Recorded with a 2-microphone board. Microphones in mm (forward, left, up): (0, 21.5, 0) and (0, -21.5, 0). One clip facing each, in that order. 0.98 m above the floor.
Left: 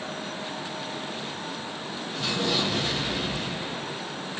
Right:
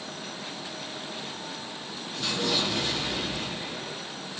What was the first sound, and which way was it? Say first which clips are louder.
An explosion: left 1 dB; 15° left (ahead or behind).